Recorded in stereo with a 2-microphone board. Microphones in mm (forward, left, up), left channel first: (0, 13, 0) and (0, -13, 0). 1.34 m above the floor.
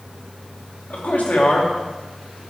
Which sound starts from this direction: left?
A man speaking, at 0.9 s.